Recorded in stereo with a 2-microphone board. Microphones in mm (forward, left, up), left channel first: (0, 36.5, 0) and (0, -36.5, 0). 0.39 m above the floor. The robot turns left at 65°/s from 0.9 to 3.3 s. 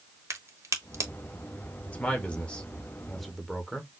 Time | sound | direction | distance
0.3 | a crack | 45° right (ahead or behind) | 1.0 m
1.9 | a man speaking | 20° left (ahead or behind) | 1.0 m